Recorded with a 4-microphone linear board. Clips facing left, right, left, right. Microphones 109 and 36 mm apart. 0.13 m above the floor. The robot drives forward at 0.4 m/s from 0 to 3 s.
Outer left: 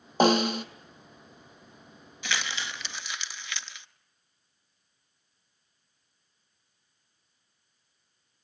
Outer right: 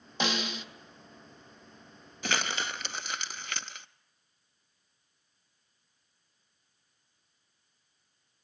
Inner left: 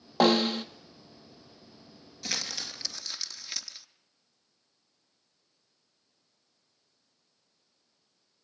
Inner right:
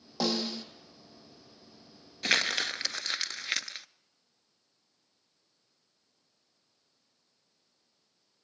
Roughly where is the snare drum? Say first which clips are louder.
Outer left 11 dB, inner left 8 dB; left.